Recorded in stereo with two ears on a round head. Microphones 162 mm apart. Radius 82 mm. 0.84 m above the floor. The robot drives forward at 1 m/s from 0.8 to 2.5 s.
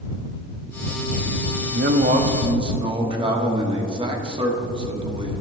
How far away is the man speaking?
About 0.6 m.